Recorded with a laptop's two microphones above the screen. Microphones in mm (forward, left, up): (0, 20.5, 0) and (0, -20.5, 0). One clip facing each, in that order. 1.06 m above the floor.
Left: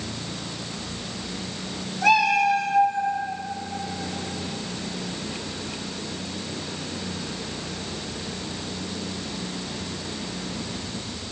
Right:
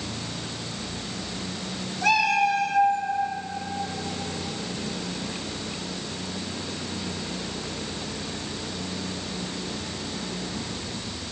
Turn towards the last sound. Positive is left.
turn(degrees=10)  # may be behind; listen again after turning